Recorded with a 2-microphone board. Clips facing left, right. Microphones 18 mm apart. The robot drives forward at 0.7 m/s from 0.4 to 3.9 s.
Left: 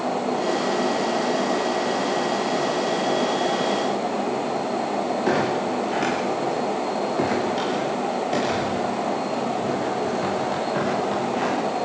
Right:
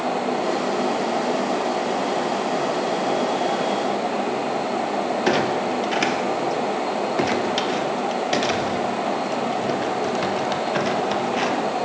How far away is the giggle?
No giggle in this recording.